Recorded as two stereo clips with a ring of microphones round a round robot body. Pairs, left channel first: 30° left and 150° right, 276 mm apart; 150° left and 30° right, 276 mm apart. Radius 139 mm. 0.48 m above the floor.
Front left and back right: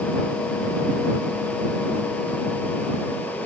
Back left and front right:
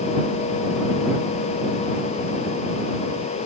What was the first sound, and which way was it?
Only background noise.